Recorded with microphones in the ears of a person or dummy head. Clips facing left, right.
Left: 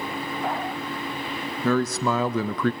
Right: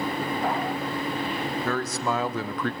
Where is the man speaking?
75° left (ahead or behind), 1.2 m; by 2.7 s 70° left (ahead or behind), 0.6 m.